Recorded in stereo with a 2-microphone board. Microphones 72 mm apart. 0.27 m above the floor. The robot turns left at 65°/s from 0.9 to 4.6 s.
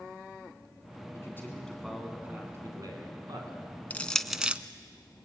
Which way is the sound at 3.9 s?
25° left (ahead or behind).